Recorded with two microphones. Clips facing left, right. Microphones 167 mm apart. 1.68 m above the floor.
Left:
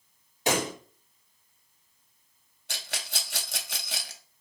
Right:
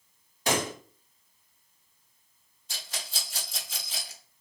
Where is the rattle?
70° left (ahead or behind), 0.6 m.